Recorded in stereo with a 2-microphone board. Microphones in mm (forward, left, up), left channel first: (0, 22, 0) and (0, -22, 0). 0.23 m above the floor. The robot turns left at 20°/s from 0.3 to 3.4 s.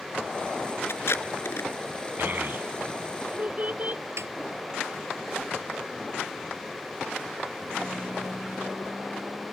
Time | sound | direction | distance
0.9 | tape being pulled | 65° left (ahead or behind) | ?
2.2 | a child speaking | 55° right (ahead or behind) | ?
4.2 | a snare drum | 75° right (ahead or behind) | ?